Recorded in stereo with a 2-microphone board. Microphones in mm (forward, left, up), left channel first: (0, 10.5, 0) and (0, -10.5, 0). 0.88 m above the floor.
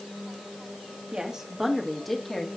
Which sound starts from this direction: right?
A woman speaking, at 1.1 s.